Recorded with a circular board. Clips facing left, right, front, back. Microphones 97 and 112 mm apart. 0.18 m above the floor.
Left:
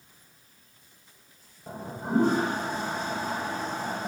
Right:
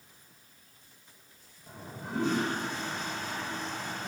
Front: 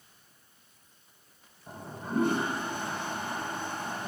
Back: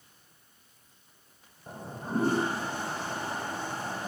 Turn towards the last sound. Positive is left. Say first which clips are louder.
# left 9 dB, back 2 dB
turn(degrees=130)